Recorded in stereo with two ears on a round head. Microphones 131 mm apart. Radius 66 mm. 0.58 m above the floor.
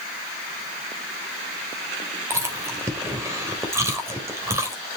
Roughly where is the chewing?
Centre.